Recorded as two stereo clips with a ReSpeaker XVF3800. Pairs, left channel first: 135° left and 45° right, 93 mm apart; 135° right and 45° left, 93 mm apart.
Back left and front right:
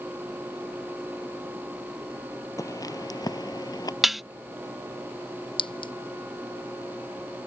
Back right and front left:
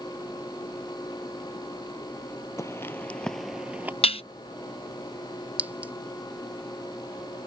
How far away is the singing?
I don't hear singing.